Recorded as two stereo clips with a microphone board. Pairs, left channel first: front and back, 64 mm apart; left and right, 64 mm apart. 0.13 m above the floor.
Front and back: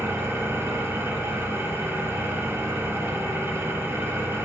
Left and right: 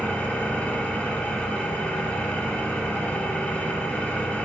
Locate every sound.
0.0 s an engine running: 145° left, 1.2 m